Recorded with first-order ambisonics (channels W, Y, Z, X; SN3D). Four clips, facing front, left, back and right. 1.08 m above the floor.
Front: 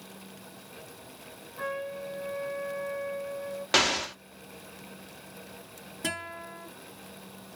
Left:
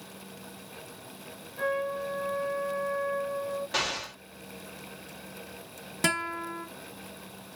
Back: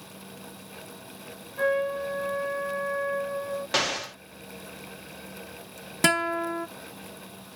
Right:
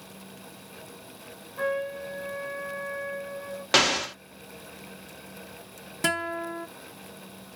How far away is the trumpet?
About 1.0 m.